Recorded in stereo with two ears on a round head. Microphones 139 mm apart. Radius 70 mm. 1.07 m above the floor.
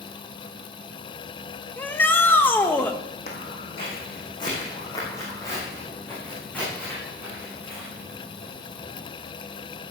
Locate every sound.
1.8 s a shout: 10° left (ahead or behind), 1.0 m
3.3 s footsteps: 45° left (ahead or behind), 3.5 m; by 9.1 s 5° right (ahead or behind), 7 m